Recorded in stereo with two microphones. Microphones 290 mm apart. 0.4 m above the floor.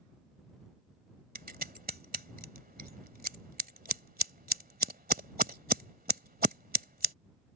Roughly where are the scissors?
Right.